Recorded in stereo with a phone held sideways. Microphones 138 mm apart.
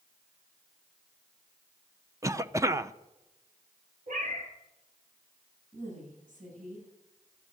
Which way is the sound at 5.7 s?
70° right (ahead or behind).